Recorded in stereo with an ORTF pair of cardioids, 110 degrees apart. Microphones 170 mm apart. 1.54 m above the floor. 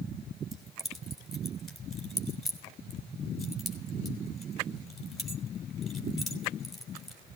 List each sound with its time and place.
0.5 s keys jangling: straight ahead, 3.5 m